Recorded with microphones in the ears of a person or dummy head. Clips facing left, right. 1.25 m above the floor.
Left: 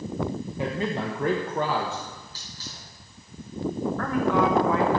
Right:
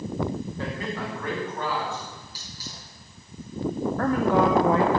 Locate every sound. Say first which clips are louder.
0.6 s a man speaking: left 3 dB; 15° left (ahead or behind), 1.2 m; by 2.0 s 55° left (ahead or behind), 1.6 m
2.1 s a hiss: even; 15° right (ahead or behind), 4.5 m
4.0 s a woman speaking: right 2 dB; 35° right (ahead or behind), 0.8 m